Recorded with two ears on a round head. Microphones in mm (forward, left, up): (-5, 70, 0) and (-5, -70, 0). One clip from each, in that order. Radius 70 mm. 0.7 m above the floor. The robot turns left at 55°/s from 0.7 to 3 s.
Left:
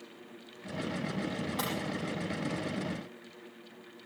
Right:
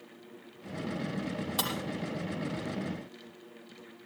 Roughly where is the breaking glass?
Right.